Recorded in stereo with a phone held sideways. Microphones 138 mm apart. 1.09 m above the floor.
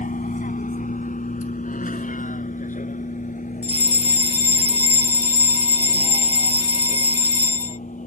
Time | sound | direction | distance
0.0 | a vehicle | 75° left (ahead or behind) | ?
3.6 | a fire alarm | 50° left (ahead or behind) | ?